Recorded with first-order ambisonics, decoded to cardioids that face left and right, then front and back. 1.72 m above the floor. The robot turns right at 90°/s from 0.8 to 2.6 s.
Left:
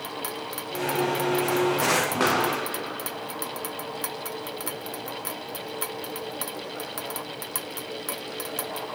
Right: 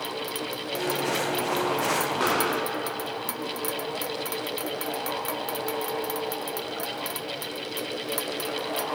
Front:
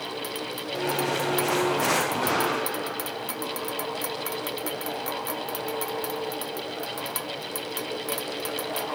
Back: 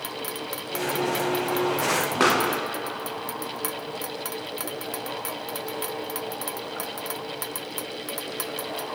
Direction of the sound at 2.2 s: 165° left.